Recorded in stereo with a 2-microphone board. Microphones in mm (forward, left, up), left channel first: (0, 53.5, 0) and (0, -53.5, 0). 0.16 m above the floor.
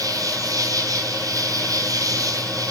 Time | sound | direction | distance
0.0 | an insect | 35° right (ahead or behind) | 2 m